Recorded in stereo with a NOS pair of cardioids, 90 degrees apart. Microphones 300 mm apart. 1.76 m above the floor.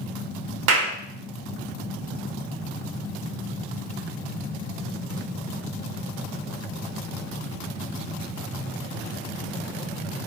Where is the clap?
60° right, 1.4 m.